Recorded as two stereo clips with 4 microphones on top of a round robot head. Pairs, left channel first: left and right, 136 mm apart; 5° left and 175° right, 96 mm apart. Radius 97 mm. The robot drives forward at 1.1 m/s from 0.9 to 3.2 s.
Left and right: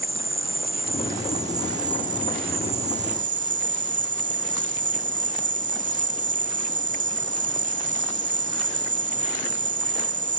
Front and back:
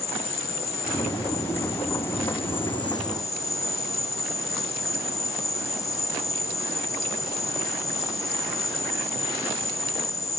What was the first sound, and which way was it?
An insect, 25° right.